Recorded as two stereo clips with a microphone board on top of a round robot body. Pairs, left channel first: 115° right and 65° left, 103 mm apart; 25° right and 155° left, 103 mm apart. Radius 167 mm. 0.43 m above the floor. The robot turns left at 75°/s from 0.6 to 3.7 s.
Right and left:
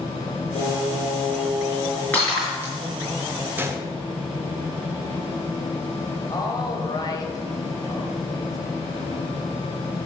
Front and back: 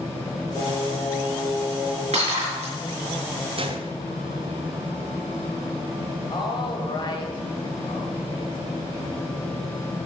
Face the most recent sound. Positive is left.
turn(degrees=-70)